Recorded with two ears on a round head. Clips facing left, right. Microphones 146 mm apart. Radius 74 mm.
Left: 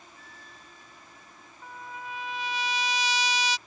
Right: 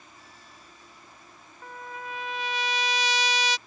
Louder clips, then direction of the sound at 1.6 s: Right 2 dB; 50° right (ahead or behind).